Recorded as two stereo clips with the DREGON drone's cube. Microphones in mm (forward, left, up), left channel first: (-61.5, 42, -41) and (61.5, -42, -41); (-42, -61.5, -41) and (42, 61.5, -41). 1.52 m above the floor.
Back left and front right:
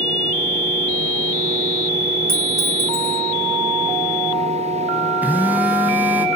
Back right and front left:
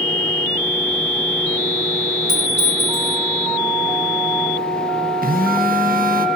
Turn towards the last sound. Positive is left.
turn(degrees=45)